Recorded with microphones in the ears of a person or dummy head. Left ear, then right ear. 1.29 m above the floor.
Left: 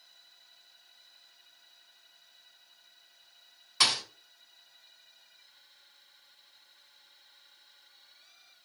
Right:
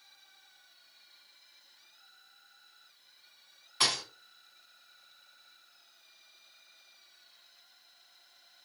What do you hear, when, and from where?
3.8 s a thud: 20° left (ahead or behind), 3 m